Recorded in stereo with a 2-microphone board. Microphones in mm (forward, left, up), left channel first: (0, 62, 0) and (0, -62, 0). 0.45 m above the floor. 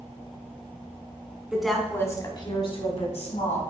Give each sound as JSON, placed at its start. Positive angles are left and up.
{"t": 1.5, "sound": "a woman speaking", "side_deg": -10, "distance_m": 1.3}